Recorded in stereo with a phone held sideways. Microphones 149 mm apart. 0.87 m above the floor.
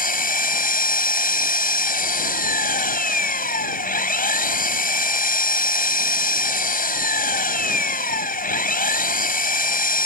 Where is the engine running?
75° left (ahead or behind).